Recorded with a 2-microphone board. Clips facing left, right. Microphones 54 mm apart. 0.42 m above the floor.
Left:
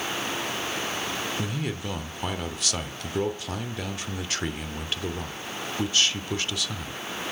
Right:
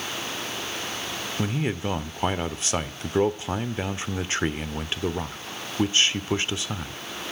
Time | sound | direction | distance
1.4 | a man speaking | 25° right (ahead or behind) | 0.8 m